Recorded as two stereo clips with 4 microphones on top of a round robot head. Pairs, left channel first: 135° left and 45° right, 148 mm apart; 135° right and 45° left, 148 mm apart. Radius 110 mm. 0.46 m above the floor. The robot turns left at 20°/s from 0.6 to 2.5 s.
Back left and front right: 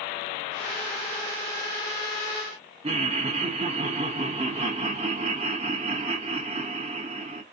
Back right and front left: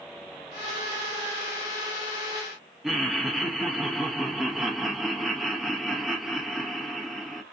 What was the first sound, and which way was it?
Laughter, 40° right.